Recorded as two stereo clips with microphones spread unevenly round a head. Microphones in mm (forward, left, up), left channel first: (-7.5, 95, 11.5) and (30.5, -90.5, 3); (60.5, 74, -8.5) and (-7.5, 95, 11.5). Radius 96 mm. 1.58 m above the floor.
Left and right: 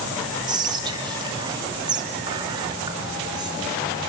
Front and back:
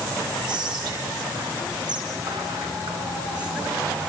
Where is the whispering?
150° right, 2.5 m.